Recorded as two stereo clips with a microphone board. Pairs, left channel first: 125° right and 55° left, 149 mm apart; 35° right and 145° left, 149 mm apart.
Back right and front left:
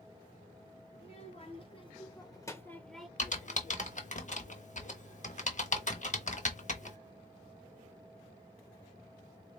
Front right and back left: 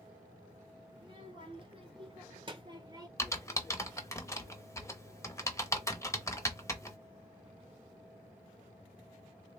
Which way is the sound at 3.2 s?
100° right.